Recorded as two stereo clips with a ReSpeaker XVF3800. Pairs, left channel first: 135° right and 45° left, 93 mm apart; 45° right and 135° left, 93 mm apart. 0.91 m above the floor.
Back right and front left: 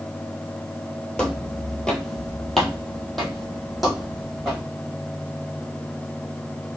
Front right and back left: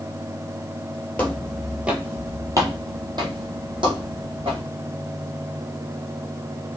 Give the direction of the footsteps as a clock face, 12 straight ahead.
2 o'clock.